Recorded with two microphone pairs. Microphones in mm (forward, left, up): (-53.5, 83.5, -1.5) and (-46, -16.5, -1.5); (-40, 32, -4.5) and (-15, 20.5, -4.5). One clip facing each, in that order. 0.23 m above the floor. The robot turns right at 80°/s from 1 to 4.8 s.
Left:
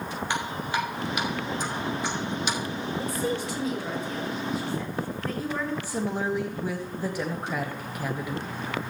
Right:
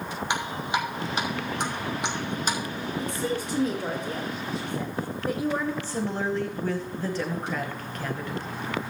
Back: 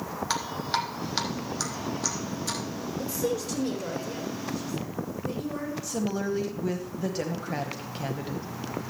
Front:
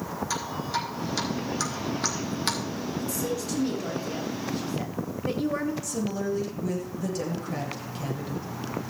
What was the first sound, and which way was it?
Dripping, 160° right.